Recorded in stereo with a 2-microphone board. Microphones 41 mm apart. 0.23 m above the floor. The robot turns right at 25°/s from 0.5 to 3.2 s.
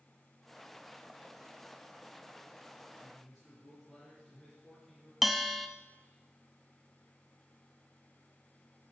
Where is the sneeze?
I don't hear a sneeze.